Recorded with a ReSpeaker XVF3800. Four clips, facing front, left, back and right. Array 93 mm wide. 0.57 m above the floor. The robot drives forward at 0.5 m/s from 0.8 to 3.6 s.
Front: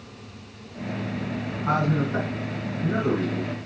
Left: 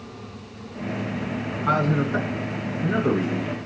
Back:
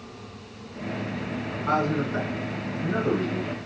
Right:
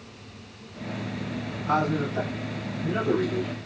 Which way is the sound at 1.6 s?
75° left.